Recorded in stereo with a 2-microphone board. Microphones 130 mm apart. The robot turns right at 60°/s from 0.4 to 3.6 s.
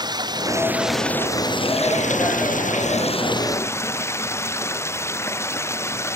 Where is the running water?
30° right; by 6.2 s 160° left.